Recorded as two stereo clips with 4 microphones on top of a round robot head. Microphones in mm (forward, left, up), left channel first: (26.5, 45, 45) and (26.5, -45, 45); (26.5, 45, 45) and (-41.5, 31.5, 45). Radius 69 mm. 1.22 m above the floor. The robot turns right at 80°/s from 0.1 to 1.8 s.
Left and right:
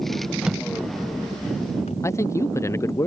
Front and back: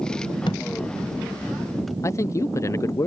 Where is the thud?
10° right; by 2.0 s 100° left.